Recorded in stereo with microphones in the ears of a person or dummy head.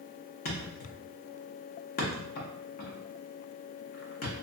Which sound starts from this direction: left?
A thud, at 0.5 s.